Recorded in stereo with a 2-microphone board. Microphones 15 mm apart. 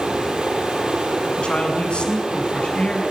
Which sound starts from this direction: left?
A man speaking, at 1.4 s.